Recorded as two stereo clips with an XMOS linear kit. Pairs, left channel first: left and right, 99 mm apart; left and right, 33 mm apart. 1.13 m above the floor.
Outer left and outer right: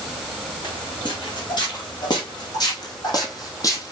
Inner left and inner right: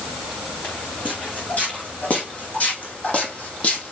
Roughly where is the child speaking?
No child speaking in this recording.